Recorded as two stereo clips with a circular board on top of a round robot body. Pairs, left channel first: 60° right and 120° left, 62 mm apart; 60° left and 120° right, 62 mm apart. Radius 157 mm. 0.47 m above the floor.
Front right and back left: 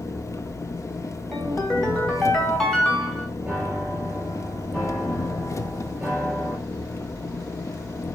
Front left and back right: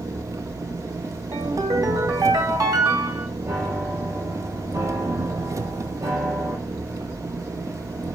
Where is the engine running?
90° right, 0.8 m.